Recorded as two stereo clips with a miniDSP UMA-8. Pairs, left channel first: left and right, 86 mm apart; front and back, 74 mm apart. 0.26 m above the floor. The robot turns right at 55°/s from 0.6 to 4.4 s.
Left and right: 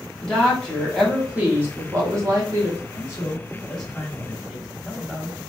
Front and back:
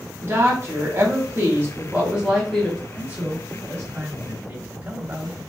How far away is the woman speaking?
About 1.5 m.